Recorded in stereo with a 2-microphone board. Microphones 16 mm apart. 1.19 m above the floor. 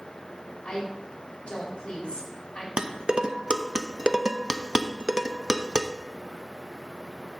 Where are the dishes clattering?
55° right (ahead or behind), 0.6 m.